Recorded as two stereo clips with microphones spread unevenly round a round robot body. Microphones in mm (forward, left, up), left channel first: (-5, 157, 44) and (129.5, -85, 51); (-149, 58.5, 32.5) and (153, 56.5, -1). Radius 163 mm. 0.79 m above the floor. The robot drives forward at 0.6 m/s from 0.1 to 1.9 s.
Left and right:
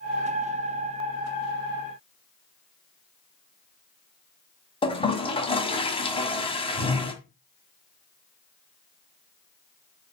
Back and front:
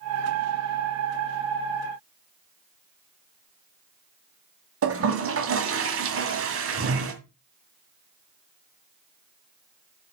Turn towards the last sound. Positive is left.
turn(degrees=45)